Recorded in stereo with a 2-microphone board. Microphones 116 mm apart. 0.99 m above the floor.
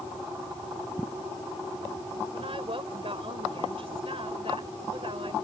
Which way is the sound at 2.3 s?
50° right (ahead or behind).